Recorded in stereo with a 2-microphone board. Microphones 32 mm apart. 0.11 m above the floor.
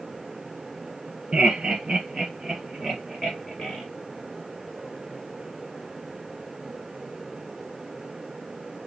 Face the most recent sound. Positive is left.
turn(degrees=5)  # may be behind; listen again after turning